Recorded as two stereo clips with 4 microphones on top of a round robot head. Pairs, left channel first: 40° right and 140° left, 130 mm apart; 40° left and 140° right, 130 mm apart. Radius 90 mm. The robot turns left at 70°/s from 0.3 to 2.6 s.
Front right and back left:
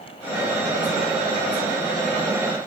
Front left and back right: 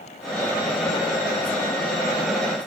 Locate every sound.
Only background noise.